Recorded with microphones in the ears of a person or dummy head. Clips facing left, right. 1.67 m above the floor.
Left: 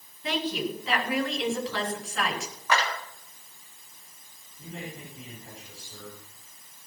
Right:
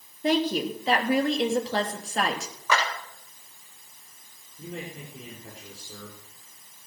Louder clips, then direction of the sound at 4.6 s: Right 2 dB; 70° right (ahead or behind).